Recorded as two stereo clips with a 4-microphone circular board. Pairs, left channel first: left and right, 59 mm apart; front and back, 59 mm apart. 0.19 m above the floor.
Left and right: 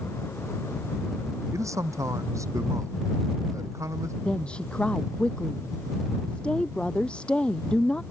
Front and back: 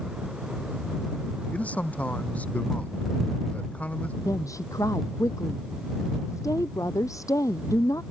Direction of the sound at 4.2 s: 20° left.